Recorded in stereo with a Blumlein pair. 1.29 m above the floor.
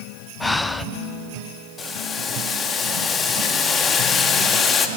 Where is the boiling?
20° left, 1.9 m.